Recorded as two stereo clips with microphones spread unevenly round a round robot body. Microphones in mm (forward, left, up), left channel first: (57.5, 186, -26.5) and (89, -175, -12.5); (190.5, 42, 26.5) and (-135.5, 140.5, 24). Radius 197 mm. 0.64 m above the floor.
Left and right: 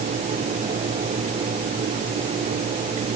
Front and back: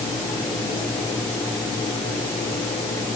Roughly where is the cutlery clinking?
No cutlery clinking in this recording.